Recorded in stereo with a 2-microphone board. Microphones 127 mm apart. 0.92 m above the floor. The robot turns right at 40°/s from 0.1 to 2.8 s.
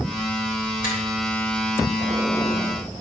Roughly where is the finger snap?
Left.